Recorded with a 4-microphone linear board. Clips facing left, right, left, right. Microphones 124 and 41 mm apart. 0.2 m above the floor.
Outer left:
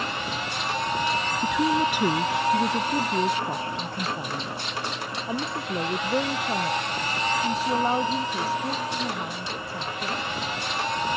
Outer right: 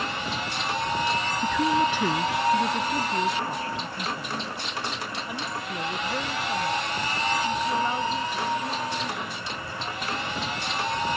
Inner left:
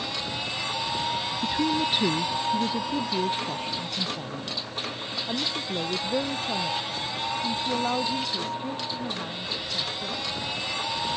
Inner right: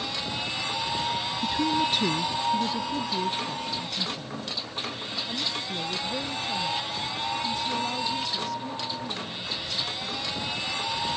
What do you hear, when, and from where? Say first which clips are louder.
1.4 s a woman speaking: even, even; 5° left (ahead or behind); by 10.2 s 35° left (ahead or behind)